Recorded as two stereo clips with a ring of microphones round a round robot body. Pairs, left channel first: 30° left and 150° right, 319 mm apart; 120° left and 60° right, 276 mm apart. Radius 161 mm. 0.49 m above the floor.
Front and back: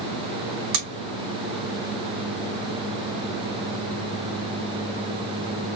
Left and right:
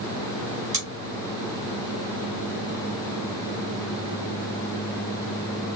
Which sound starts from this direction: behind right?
Scissors, at 0.7 s.